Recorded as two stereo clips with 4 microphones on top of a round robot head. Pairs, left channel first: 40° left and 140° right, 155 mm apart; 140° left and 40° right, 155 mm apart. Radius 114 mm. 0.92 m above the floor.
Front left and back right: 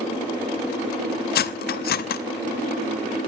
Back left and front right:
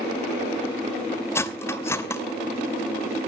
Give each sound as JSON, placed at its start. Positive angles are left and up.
{"t": 1.4, "sound": "cutlery clinking", "azimuth_deg": 65, "distance_m": 0.8}